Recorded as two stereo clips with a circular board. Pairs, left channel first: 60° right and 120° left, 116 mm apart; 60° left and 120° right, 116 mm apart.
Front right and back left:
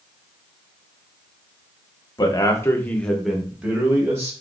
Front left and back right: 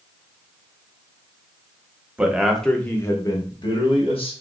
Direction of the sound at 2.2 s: 50° right.